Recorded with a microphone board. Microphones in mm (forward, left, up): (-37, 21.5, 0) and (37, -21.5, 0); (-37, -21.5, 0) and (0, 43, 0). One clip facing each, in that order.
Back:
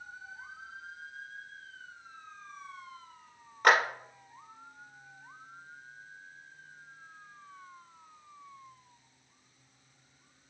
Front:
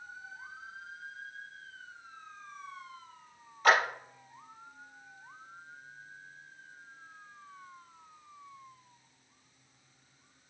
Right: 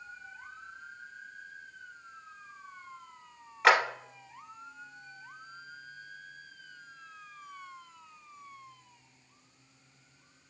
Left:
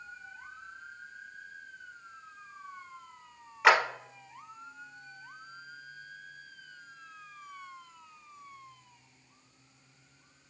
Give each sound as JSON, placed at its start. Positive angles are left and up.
{"t": 3.6, "sound": "a clap", "azimuth_deg": 145, "distance_m": 1.8}